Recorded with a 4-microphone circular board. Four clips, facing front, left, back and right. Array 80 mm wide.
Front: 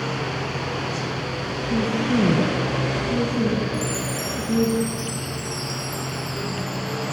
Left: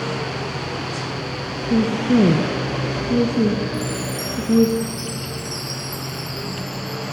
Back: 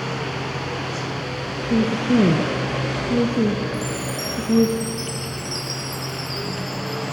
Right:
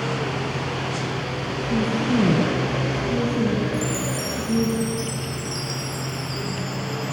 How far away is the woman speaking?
About 2 m.